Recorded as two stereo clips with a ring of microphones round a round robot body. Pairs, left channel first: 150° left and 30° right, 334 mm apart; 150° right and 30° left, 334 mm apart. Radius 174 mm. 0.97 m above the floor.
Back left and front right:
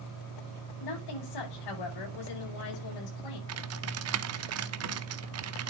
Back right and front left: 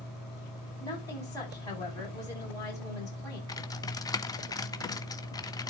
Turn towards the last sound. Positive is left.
turn(degrees=-70)